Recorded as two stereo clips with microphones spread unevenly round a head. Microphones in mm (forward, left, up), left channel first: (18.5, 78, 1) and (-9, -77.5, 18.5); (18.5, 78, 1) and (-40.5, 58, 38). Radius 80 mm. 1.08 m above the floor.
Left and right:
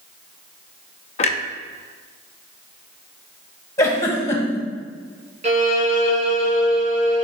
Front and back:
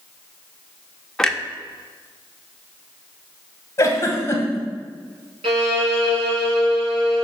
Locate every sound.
1.2 s a clunk: 130° left, 0.6 m
3.8 s a giggle: 10° left, 1.4 m
5.4 s a violin: 150° right, 1.3 m